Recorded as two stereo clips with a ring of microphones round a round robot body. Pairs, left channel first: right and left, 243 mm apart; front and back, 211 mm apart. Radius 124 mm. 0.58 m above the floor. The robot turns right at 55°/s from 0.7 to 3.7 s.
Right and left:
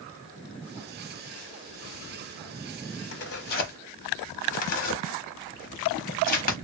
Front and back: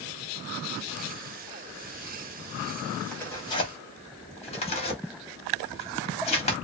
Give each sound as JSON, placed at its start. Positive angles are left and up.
{"t": 3.1, "sound": "tearing paper", "azimuth_deg": -85, "distance_m": 0.8}